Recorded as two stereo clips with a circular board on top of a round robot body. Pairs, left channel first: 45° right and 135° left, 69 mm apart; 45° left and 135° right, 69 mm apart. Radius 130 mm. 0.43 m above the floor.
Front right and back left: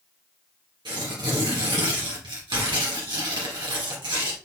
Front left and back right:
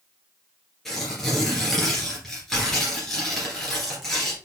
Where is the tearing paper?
130° left, 2 m.